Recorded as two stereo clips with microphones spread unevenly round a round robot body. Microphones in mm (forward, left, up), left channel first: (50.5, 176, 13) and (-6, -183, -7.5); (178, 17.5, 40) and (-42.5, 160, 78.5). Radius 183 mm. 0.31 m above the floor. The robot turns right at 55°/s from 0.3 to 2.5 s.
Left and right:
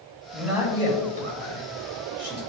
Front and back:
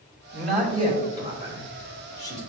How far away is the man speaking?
About 1.7 m.